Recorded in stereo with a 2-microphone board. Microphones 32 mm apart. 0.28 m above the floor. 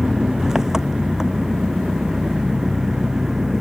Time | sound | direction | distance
0.0 | an engine running | 15° right (ahead or behind) | ?